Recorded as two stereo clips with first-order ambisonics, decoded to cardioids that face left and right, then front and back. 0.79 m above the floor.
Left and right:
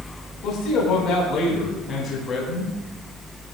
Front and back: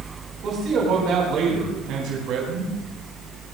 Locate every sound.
0.4 s a man speaking: 130° left, 3.5 m; by 2.7 s 155° left, 4 m